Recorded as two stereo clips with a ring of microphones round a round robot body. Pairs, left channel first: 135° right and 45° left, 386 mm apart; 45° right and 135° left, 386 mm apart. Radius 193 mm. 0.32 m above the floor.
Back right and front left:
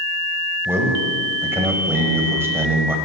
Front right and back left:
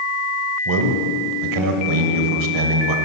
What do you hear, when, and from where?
0.7 s a man speaking: 130° left, 1.2 m